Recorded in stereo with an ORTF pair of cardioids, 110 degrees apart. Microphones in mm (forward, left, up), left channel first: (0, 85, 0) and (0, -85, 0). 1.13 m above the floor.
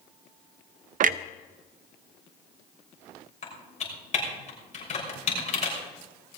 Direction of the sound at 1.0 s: 55° right.